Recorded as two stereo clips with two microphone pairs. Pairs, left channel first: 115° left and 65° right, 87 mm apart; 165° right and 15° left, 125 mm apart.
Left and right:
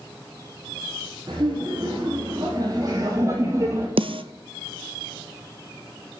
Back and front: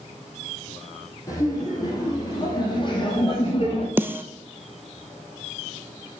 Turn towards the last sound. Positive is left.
turn(degrees=-60)